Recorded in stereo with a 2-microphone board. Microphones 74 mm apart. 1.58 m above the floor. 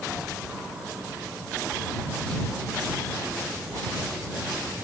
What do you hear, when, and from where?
Only background noise.